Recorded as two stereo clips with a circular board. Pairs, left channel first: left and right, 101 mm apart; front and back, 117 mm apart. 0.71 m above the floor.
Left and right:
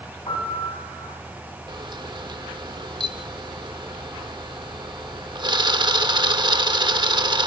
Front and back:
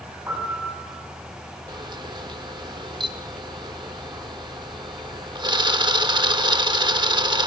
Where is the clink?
No clink in this recording.